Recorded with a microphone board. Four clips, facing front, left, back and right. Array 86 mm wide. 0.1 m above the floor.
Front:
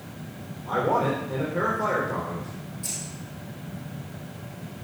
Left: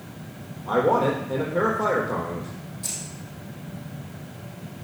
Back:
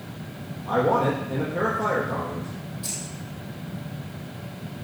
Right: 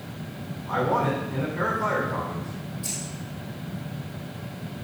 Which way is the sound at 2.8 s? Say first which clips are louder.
Right 3 dB, back 2 dB; 135° left.